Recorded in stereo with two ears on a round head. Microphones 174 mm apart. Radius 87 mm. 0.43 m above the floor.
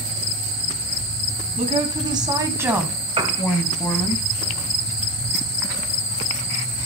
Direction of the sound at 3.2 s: 25° right (ahead or behind).